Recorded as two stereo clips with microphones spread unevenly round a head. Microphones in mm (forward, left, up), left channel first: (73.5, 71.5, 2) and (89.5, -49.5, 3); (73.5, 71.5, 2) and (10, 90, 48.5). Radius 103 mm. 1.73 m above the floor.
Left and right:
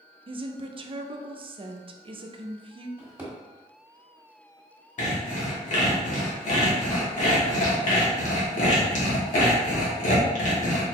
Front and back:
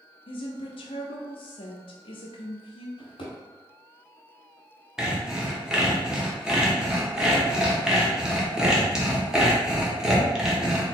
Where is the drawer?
25° right, 1.5 m.